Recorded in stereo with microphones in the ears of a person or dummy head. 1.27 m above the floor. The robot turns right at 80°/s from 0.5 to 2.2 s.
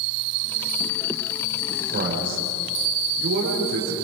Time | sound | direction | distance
1.9 | a man speaking | 40° right (ahead or behind) | 5 m